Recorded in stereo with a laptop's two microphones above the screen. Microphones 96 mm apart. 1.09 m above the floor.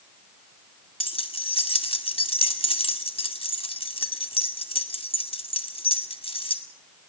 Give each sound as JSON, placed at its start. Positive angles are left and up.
{"t": 1.0, "sound": "keys jangling", "side_deg": 80, "distance_m": 1.9}